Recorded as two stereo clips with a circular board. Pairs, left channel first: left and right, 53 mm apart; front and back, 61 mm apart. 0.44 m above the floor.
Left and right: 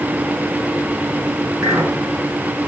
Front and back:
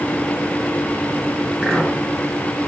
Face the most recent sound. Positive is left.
turn(degrees=-90)